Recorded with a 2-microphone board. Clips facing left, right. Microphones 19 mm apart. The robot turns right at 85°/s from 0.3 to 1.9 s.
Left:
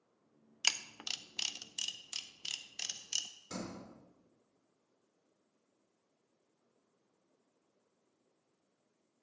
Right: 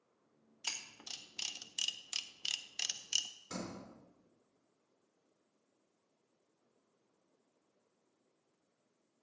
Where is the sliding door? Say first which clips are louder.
Left 1 dB; 20° right (ahead or behind), 4.5 m.